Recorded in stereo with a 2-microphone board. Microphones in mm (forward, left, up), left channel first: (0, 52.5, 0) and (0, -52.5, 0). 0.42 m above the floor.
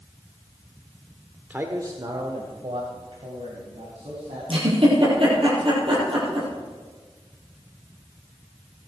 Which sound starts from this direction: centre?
A man speaking, at 1.5 s.